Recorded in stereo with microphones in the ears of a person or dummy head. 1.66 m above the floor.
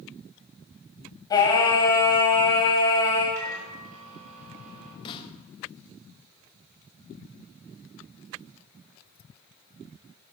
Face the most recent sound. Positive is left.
turn(degrees=30)  # may be behind; listen again after turning